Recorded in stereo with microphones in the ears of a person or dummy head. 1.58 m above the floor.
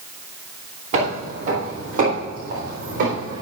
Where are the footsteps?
45° right (ahead or behind), 3 m; by 3.4 s 55° right (ahead or behind), 5 m.